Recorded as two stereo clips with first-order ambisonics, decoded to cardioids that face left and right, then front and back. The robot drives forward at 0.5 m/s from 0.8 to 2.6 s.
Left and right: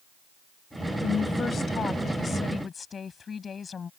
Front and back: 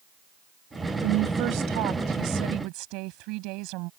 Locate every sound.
1.0 s a woman speaking: 155° left; by 3.9 s 160° left